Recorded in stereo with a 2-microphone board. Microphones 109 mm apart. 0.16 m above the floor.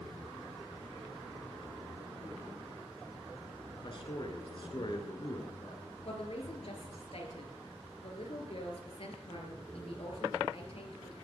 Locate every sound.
3.8 s a man speaking: 50° left (ahead or behind), 2 m
6.0 s a woman speaking: 65° left (ahead or behind), 3 m